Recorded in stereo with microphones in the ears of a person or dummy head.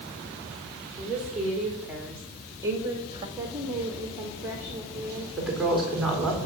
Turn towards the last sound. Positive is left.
turn(degrees=-5)  # may be behind; listen again after turning